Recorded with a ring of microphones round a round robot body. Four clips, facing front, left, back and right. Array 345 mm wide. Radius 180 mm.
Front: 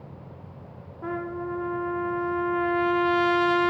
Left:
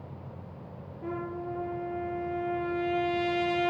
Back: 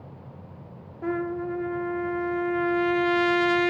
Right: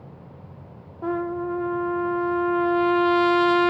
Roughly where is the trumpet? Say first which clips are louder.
Right 9 dB, back 3 dB; behind right.